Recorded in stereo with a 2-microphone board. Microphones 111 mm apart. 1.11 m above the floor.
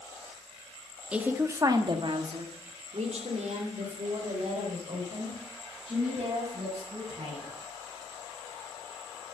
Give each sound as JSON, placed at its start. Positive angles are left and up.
{"t": 1.1, "sound": "a woman speaking", "side_deg": -10, "distance_m": 1.7}